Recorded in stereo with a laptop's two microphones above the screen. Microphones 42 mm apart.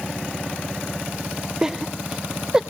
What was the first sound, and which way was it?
Laughter, 15° right (ahead or behind).